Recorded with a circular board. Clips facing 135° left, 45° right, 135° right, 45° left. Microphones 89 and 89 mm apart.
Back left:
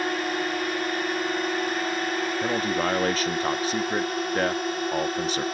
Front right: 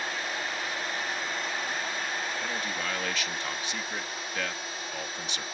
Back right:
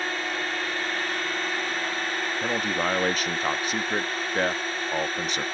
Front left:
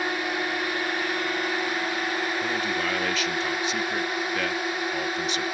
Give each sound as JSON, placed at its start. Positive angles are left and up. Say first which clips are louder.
{"t": 0.0, "sound": "a drone", "louder": "back left 7 dB, front left 2 dB", "azimuth_deg": 120}
{"t": 2.4, "sound": "a man speaking", "louder": "back left 8 dB, back right 1 dB", "azimuth_deg": 175}